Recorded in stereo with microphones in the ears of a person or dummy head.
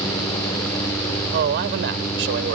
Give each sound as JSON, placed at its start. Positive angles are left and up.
{"t": 1.3, "sound": "a man speaking", "side_deg": -60}